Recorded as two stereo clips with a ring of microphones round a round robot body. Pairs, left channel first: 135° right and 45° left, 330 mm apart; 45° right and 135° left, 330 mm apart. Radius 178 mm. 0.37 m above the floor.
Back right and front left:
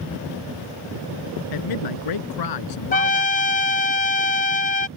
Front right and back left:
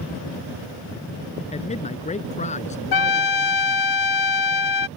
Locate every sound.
1.5 s a man speaking: 115° right
2.9 s a trumpet: 70° right